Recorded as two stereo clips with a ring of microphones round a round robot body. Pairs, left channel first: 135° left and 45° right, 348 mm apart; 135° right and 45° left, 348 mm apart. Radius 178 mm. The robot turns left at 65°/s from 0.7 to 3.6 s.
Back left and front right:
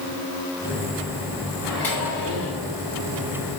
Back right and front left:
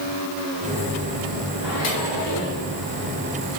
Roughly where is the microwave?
Behind right.